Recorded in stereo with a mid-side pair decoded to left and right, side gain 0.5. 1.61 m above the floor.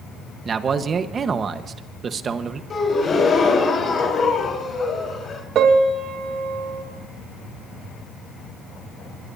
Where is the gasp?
40° left, 4 m.